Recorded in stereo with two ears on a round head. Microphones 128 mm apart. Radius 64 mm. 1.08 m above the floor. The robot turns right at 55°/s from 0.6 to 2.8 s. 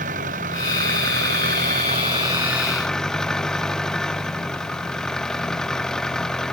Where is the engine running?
115° right; by 6.5 s 5° left.